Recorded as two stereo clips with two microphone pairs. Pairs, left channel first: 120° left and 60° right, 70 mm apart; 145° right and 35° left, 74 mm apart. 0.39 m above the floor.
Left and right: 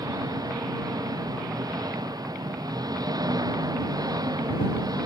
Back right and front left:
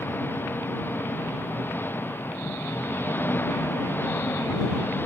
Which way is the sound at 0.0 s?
85° right.